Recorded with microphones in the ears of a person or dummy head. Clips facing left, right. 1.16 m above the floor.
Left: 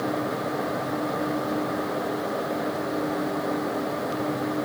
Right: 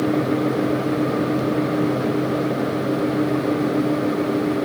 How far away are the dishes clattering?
No dishes clattering in this recording.